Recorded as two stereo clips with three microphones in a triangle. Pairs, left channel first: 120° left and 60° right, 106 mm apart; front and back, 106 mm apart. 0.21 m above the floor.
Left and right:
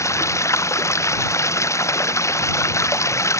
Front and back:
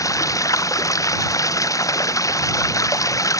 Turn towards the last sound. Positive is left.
turn(degrees=60)